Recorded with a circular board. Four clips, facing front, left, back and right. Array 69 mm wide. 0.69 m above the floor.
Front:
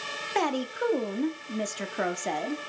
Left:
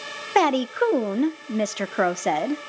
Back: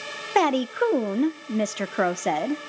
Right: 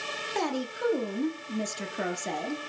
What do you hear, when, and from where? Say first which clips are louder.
0.3 s a woman speaking: left 12 dB, back 7 dB; 120° left, 0.9 m